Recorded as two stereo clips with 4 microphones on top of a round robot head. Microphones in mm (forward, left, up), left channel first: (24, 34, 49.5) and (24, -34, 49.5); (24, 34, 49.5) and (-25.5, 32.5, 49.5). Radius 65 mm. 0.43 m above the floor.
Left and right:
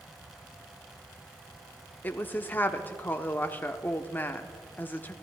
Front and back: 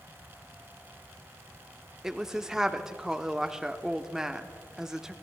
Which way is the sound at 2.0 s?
110° left.